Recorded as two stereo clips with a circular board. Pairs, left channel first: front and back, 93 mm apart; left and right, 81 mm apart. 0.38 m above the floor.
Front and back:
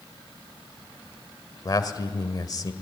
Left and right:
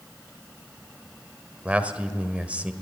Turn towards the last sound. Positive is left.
turn(degrees=-25)